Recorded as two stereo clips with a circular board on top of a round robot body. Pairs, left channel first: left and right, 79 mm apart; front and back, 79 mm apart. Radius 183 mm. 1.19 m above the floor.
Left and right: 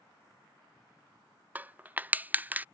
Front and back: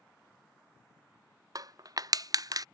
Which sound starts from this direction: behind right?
Crushing, at 1.6 s.